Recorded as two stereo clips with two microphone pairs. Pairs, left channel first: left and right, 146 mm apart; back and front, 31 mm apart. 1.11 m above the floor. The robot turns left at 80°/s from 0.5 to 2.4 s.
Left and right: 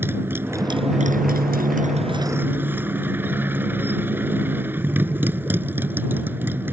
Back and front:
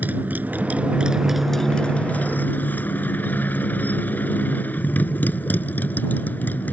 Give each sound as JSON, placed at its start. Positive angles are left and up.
{"t": 0.0, "sound": "a motorcycle", "azimuth_deg": -15}